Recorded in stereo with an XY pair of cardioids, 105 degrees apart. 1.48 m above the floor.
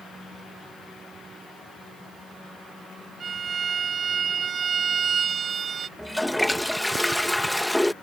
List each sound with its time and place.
3.2 s a violin: 45° right
6.0 s a toilet flushing: straight ahead